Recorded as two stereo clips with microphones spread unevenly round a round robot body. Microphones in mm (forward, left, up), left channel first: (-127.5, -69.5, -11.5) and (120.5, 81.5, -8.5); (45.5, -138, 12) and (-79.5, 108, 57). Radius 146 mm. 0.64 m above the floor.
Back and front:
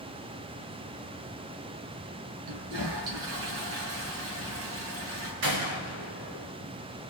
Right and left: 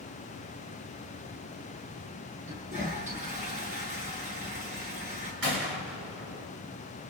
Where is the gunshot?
65° left, 7 m.